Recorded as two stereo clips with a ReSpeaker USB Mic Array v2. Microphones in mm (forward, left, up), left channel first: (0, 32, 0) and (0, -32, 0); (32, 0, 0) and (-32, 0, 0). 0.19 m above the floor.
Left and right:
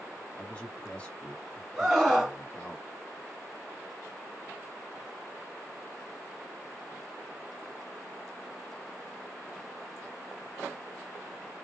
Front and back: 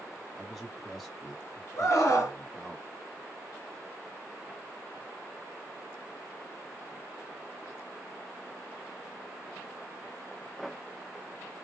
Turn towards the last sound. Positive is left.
turn(degrees=-10)